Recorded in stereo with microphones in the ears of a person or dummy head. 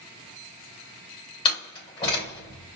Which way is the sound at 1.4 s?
25° left (ahead or behind).